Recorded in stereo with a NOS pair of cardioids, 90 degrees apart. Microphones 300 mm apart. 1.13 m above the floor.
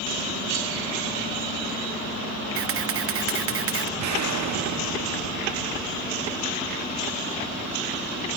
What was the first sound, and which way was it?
A camera shutter, 50° right.